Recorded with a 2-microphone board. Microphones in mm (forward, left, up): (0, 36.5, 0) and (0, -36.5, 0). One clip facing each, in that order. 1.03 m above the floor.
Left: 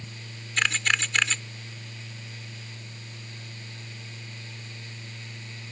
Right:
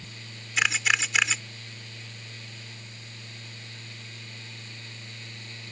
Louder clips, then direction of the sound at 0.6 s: Right 1 dB; 5° right (ahead or behind).